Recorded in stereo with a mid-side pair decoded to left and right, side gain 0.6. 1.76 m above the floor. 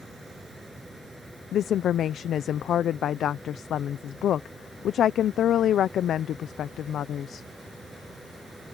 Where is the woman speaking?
50° left.